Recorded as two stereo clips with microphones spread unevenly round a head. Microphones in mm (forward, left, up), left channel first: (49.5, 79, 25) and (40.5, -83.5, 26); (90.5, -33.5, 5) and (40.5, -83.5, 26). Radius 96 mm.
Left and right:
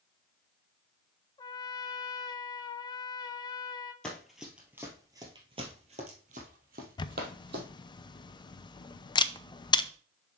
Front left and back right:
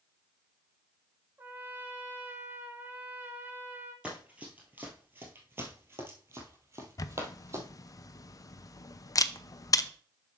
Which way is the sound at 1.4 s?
145° left.